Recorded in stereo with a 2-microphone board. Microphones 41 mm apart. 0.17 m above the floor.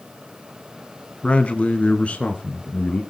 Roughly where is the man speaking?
Left.